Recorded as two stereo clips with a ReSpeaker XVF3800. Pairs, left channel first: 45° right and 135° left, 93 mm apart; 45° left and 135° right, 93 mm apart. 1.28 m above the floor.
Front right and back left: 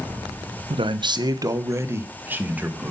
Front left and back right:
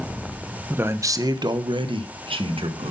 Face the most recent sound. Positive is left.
turn(degrees=-150)